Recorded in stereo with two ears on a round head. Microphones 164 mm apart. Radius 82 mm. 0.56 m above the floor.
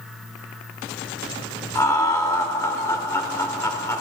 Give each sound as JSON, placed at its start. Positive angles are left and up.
{"t": 1.8, "sound": "laughter", "side_deg": 20, "distance_m": 1.3}